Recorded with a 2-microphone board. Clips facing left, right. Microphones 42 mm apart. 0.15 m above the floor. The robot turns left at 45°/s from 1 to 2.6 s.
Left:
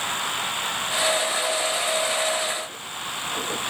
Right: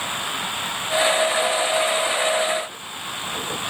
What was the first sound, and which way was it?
Only background noise.